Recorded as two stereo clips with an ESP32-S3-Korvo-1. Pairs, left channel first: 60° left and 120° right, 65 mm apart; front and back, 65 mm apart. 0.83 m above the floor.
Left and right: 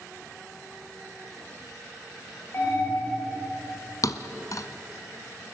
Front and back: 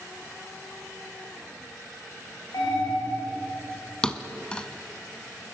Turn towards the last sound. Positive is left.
turn(degrees=75)